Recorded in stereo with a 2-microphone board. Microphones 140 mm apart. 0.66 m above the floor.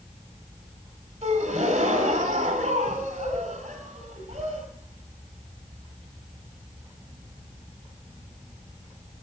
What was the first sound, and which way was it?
A gasp, 55° right (ahead or behind).